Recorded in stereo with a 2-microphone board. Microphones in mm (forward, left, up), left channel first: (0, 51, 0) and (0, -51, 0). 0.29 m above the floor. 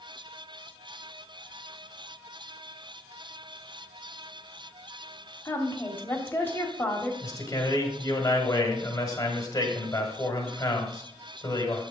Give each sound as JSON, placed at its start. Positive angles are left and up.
{"t": 5.5, "sound": "a woman speaking", "side_deg": 20, "distance_m": 1.2}
{"t": 7.2, "sound": "a man speaking", "side_deg": 30, "distance_m": 1.4}